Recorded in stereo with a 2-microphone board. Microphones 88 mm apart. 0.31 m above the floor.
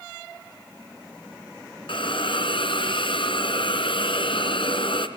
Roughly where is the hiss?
Left.